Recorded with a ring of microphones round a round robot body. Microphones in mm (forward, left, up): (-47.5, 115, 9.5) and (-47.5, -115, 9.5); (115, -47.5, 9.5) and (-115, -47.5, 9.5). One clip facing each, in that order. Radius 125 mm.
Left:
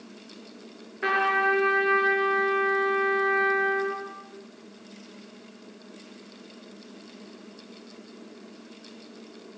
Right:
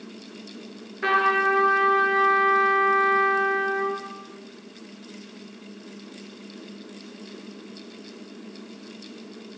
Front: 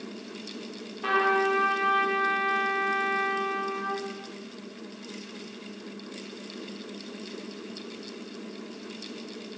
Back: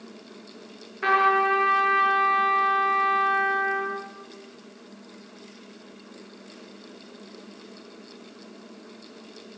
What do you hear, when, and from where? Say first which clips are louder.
1.0 s a trumpet: right 2 dB, even; straight behind, 6 m